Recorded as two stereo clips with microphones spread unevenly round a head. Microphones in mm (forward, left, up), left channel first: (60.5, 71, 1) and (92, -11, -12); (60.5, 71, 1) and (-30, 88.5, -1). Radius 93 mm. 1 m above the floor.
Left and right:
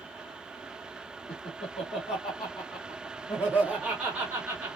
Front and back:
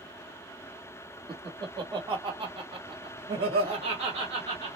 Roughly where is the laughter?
Behind left.